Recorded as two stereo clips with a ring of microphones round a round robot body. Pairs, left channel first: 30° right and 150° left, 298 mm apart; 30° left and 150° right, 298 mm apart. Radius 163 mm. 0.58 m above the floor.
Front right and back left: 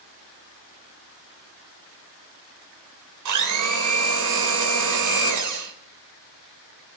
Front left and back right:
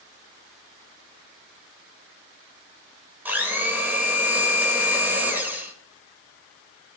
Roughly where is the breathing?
I don't hear breathing.